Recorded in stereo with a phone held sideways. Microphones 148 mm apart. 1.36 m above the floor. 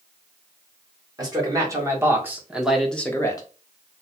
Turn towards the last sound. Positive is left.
turn(degrees=30)  # may be behind; listen again after turning